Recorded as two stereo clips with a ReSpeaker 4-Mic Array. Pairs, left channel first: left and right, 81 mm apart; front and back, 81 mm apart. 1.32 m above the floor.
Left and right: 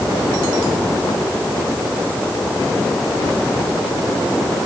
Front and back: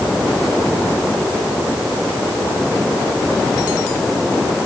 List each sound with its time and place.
Only background noise.